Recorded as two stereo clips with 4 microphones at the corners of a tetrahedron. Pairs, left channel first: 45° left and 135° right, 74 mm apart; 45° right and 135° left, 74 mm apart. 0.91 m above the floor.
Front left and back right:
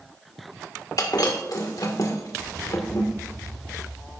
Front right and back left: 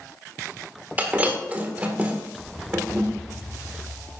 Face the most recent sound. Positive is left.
turn(degrees=70)